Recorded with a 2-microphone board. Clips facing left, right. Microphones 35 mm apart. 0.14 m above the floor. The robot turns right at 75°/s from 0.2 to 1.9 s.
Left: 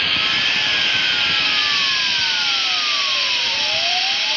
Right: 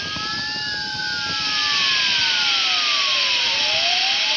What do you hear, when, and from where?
0.0 s running water: 50° left; by 4.4 s straight behind